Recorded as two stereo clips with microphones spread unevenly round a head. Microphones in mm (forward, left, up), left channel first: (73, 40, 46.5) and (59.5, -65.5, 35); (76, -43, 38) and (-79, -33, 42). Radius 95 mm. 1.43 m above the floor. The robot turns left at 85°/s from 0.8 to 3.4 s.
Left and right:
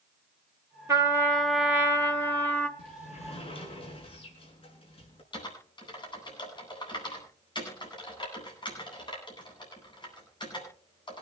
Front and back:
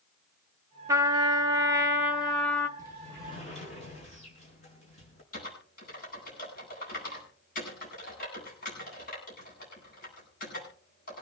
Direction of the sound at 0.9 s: 150° right.